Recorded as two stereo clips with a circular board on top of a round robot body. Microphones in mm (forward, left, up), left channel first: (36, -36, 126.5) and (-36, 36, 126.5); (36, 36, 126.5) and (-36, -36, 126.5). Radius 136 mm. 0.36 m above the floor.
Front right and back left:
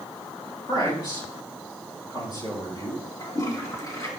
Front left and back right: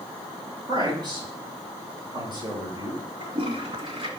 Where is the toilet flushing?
105° right, 2.5 m.